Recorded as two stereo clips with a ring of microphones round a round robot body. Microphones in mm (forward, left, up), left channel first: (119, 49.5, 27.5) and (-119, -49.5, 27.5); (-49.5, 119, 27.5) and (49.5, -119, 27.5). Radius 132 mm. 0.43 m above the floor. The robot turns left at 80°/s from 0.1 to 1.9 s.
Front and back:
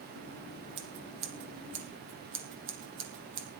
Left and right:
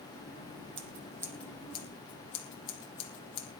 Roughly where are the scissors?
Right.